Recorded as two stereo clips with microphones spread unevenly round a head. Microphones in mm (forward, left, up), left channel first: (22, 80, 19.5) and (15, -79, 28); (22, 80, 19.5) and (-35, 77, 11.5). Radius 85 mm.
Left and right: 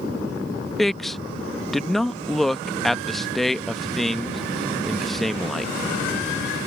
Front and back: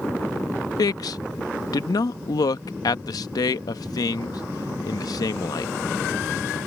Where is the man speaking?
Straight ahead.